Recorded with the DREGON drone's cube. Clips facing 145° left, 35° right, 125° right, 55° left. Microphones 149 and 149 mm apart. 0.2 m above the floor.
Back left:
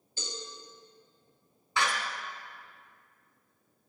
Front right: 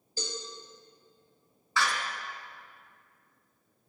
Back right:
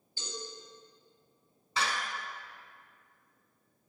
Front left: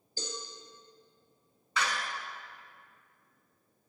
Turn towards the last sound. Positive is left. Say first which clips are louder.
# even, even
turn(degrees=-155)